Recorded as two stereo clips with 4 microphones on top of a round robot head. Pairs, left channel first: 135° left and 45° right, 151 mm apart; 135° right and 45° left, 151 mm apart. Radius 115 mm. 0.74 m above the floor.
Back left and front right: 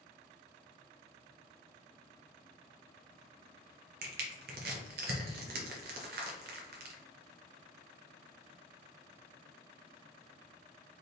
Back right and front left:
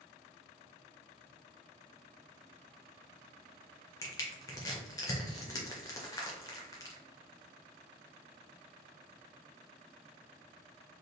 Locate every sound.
4.0 s crushing: 65° right, 0.9 m